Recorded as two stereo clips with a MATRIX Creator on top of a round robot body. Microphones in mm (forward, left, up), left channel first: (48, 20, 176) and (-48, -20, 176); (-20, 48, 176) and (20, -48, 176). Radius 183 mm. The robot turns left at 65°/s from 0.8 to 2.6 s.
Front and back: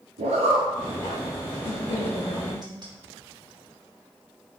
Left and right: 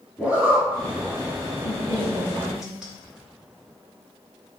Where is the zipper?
150° right, 0.5 m.